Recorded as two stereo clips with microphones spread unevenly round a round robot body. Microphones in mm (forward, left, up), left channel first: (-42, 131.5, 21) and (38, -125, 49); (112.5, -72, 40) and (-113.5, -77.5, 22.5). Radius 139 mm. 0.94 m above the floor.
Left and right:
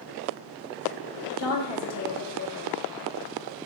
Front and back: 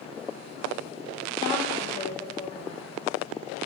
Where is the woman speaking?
80° left, 2.5 m.